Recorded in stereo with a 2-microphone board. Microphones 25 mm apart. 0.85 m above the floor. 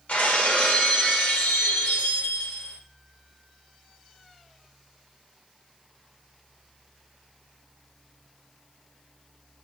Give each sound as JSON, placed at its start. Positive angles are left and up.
{"t": 0.1, "sound": "breaking glass", "side_deg": 85, "distance_m": 1.6}